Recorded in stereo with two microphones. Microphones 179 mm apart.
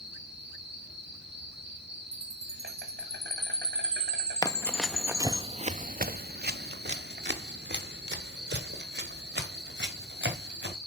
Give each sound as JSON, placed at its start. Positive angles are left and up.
{"t": 0.0, "sound": "an insect", "side_deg": -80, "distance_m": 2.5}
{"t": 2.1, "sound": "a chime", "side_deg": -35, "distance_m": 0.8}
{"t": 4.4, "sound": "running footsteps", "side_deg": 20, "distance_m": 0.7}